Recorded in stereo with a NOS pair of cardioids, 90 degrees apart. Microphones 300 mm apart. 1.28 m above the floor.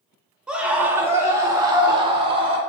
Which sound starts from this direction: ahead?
A scream, at 0.5 s.